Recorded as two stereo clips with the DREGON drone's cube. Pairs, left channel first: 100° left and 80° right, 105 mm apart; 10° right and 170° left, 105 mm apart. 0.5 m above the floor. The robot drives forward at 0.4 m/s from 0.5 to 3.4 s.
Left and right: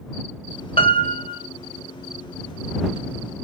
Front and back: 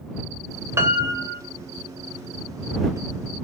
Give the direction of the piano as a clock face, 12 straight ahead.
8 o'clock.